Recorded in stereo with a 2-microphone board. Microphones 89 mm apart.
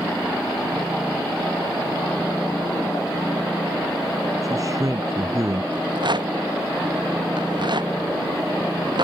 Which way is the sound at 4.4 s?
40° right (ahead or behind).